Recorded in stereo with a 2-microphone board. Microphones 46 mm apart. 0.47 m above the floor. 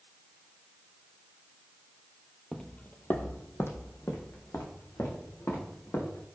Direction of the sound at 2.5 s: 5° left (ahead or behind).